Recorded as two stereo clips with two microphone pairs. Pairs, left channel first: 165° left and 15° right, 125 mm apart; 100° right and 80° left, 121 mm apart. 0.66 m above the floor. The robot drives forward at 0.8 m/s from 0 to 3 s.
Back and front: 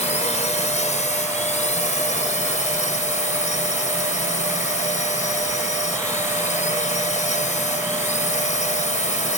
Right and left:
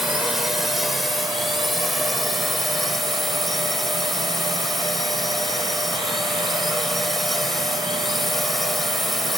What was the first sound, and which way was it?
A drone, 170° left.